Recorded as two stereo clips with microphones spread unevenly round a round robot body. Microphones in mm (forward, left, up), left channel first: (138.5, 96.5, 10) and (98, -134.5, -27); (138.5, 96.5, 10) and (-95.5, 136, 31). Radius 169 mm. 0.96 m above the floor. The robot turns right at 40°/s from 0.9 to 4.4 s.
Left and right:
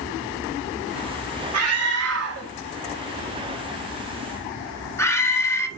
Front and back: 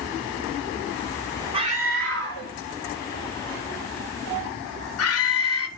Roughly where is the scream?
Behind right.